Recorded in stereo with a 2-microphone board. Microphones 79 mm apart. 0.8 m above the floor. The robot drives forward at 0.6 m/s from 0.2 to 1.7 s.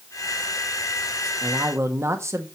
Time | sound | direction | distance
1.4 | a man speaking | 35° right (ahead or behind) | 1.5 m